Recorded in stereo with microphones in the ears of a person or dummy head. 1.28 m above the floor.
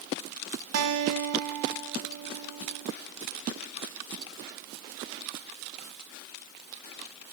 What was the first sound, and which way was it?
A guitar, 85° right.